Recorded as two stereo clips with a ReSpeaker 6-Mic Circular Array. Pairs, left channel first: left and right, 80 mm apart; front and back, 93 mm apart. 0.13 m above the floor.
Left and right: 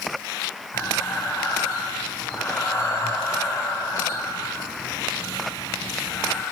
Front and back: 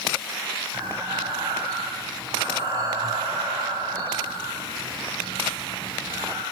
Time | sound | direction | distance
0.7 | breathing | 150° left | 2.5 m